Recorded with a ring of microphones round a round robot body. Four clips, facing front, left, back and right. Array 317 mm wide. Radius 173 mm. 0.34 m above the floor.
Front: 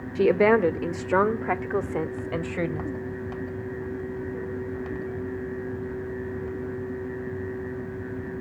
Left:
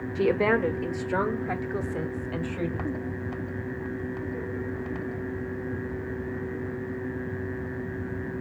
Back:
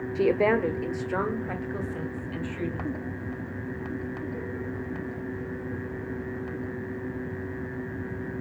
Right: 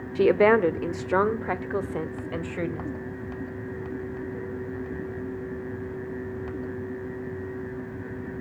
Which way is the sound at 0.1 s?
75° right.